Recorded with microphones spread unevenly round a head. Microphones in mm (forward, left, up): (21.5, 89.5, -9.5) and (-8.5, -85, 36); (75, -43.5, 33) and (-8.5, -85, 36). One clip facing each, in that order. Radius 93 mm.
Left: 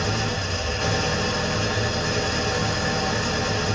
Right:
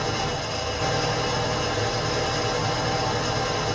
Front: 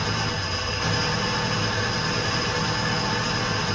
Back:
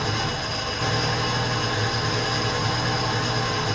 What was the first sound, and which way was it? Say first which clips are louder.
An engine running: left 1 dB, back 1 dB; 150° left.